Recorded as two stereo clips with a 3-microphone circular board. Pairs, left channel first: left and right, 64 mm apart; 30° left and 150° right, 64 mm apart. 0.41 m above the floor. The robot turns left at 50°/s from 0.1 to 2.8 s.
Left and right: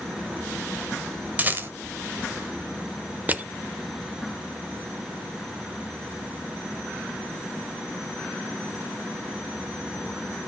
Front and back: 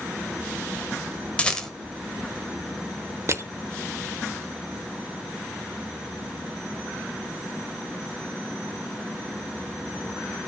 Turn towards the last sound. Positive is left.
turn(degrees=-145)